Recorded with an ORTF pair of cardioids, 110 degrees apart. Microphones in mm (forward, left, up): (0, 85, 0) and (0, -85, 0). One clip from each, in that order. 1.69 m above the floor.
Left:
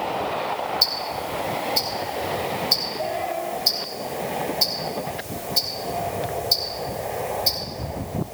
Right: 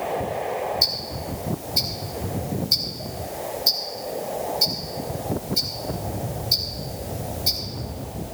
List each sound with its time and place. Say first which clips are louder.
0.8 s ticking: left 1 dB; 20° left, 3.5 m